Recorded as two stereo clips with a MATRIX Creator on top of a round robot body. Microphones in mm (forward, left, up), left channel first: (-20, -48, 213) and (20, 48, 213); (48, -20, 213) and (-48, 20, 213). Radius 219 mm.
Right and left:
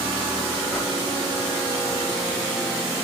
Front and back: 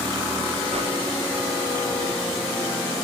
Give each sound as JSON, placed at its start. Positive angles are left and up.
{"t": 0.7, "sound": "a whoosh", "azimuth_deg": 165, "distance_m": 9.0}